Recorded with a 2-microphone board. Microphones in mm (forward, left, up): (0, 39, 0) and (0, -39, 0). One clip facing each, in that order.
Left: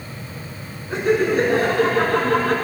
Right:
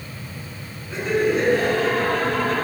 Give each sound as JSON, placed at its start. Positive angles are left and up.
{"t": 0.9, "sound": "laughter", "side_deg": 55, "distance_m": 5.0}